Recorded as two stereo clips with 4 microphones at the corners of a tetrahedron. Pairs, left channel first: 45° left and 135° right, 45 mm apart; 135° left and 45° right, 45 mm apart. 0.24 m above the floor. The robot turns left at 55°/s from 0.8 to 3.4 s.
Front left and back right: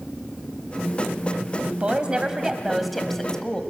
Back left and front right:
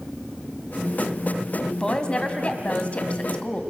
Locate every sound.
1.8 s a woman speaking: 165° right, 1.7 m; by 3.6 s 105° left, 1.7 m